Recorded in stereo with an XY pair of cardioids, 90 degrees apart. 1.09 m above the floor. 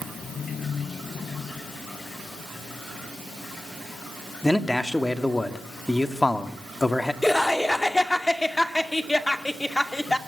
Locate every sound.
4.4 s a man speaking: 15° left, 2.5 m
7.2 s laughter: 10° left, 2 m